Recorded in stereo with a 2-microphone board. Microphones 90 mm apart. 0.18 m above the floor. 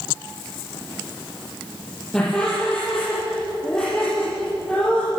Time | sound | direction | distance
2.1 | laughter | 5° left (ahead or behind) | 7.5 m